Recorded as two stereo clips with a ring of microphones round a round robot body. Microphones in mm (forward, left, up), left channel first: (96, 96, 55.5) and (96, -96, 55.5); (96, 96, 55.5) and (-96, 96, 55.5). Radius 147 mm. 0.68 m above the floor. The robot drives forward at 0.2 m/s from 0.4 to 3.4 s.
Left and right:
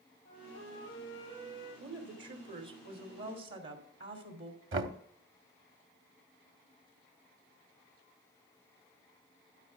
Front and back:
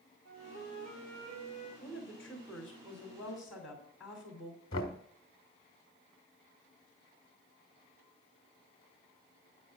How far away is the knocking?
About 1.0 m.